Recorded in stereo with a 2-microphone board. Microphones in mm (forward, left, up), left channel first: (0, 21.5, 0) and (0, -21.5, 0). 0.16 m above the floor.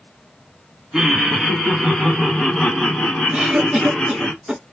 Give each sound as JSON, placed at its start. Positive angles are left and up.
{"t": 0.9, "sound": "laughter", "side_deg": -10, "distance_m": 1.2}
{"t": 3.3, "sound": "a cough", "side_deg": -10, "distance_m": 1.3}